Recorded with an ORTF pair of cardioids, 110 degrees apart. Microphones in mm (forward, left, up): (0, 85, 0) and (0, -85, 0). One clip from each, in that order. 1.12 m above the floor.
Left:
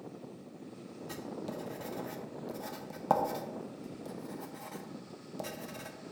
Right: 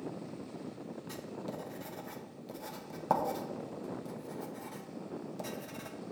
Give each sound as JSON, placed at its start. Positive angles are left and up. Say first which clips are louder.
{"t": 1.1, "sound": "writing", "louder": "left 3 dB", "azimuth_deg": 10, "distance_m": 0.9}